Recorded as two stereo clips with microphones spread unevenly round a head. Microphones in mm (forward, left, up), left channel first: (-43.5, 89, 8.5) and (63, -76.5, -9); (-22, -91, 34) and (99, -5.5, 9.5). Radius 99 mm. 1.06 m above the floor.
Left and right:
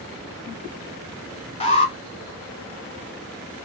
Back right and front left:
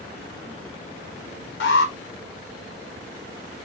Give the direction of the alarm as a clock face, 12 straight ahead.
6 o'clock.